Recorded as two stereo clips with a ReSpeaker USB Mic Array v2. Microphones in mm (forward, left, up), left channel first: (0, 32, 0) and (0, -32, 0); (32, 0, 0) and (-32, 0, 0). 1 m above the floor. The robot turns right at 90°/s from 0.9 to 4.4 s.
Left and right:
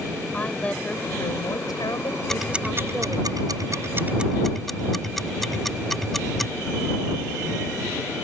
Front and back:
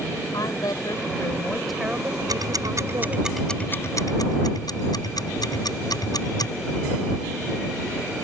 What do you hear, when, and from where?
0.3 s a woman speaking: 20° left; by 3.3 s 125° right
2.3 s ticking: 175° left; by 6.5 s 5° left